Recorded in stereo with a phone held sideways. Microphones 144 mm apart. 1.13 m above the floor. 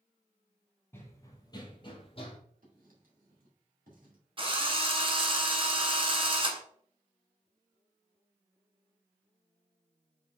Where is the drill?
35° right (ahead or behind), 0.9 m.